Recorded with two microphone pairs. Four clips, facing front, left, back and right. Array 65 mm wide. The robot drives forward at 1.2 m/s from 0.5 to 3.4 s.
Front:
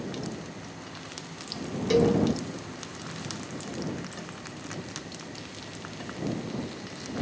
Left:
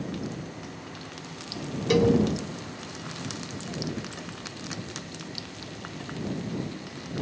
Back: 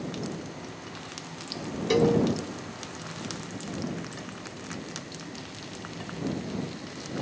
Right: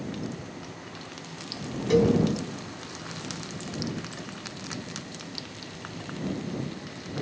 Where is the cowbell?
135° left, 0.9 m; by 2.2 s 150° left, 1.1 m.